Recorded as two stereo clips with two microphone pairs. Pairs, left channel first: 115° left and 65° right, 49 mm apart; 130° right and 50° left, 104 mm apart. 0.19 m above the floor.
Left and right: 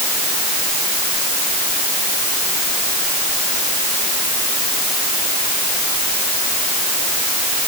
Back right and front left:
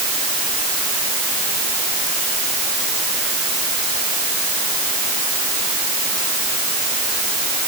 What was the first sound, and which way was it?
Only background noise.